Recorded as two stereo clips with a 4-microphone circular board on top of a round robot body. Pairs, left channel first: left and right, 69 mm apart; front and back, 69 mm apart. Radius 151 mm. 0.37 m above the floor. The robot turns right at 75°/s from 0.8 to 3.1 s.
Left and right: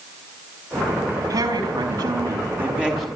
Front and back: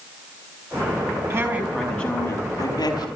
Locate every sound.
1.3 s a woman speaking: 130° right, 5.5 m; by 3.1 s 5° left, 5.5 m